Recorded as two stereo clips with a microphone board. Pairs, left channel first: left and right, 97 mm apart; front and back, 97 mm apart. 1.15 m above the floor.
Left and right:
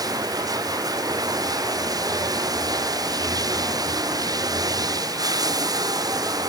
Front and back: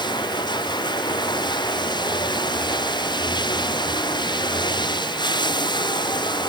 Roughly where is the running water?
Ahead right.